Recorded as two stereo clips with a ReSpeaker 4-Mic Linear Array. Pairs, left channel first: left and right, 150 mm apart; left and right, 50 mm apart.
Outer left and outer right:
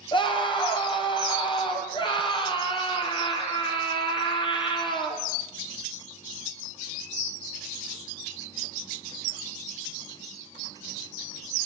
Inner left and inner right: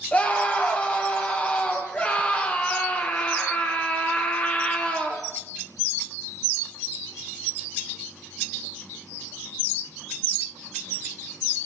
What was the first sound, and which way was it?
A scream, 35° left (ahead or behind).